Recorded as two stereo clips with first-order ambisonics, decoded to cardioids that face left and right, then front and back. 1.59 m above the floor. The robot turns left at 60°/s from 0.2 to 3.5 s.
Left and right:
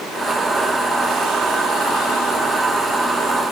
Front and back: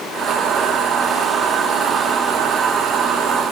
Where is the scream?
I don't hear a scream.